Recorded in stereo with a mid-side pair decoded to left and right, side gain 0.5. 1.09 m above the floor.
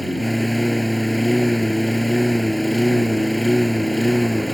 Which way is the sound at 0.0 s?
5° left.